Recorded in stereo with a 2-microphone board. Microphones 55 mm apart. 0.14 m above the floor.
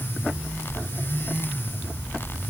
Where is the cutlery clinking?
I don't hear cutlery clinking.